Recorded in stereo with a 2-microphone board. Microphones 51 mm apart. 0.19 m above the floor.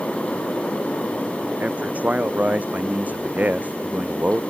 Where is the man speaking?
30° right (ahead or behind).